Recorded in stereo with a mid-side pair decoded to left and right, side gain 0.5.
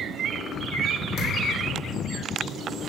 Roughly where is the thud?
Ahead left.